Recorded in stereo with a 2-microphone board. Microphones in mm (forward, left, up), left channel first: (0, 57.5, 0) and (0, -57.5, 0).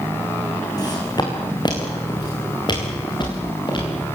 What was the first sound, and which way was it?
Footsteps, 35° left (ahead or behind).